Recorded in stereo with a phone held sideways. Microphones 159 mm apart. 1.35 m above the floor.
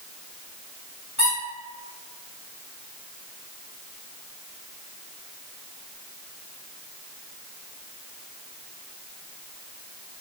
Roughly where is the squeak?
Right.